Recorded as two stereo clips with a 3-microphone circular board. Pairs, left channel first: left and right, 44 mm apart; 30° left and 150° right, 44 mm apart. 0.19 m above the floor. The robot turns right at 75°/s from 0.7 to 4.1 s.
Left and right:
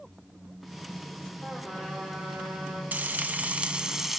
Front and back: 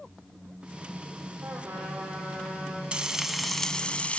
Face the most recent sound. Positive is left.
turn(degrees=-5)